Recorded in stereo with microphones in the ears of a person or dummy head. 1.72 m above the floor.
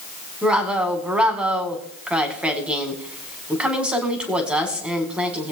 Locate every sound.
0.4 s a woman speaking: 5° right (ahead or behind), 1.9 m